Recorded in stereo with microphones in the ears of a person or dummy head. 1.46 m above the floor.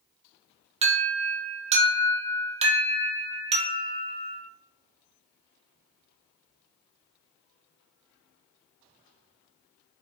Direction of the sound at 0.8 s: 30° right (ahead or behind).